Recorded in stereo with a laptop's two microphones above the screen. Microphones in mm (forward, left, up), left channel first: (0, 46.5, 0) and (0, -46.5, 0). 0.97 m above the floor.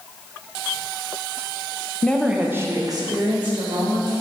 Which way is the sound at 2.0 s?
15° left (ahead or behind).